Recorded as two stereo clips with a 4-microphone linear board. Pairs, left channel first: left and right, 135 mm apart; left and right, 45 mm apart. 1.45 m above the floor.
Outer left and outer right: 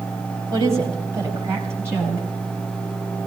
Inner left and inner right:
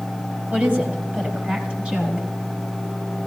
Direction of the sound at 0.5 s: 25° right (ahead or behind).